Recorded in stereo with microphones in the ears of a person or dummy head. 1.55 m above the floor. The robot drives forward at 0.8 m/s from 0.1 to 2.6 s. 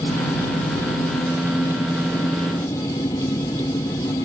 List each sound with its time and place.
0.0 s an engine running: 15° left (ahead or behind)